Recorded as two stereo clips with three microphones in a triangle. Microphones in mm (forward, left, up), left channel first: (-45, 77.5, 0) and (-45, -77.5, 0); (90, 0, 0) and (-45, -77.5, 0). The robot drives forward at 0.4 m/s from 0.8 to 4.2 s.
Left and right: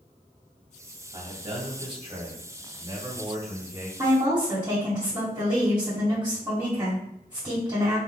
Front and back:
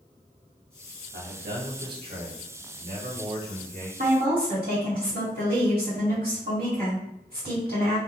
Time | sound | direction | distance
1.1 | a man speaking | 140° right | 1.3 m
4.0 | a woman speaking | 155° right | 2 m